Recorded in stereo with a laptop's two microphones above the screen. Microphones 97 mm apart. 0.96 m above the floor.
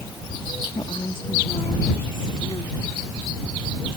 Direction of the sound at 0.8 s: 60° left (ahead or behind).